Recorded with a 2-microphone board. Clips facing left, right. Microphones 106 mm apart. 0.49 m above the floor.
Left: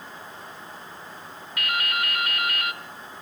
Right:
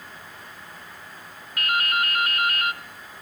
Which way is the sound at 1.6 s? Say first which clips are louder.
Right 3 dB; 40° right (ahead or behind).